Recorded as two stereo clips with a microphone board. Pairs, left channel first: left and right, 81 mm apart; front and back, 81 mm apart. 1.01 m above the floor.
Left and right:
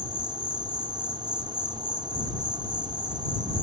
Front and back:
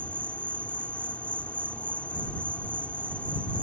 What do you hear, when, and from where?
0.0 s an insect: 75° right